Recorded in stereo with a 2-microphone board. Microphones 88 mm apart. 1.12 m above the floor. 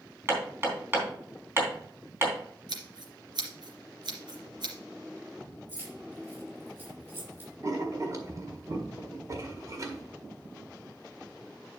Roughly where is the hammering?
Right.